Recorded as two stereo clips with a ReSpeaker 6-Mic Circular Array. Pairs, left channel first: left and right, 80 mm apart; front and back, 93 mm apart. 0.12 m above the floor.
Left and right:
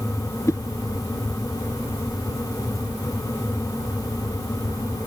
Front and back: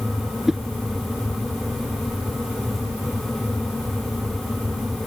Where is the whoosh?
95° left.